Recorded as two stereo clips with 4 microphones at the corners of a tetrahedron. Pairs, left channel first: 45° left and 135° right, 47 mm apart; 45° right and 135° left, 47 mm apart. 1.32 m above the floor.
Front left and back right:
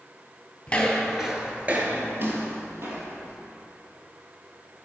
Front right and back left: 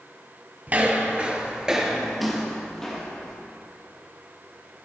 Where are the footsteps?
110° left, 1.7 m; by 3.3 s 120° right, 3.5 m.